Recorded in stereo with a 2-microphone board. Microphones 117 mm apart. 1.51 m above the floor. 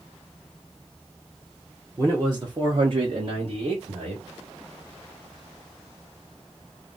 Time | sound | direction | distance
2.0 | a man speaking | 25° right (ahead or behind) | 1.2 m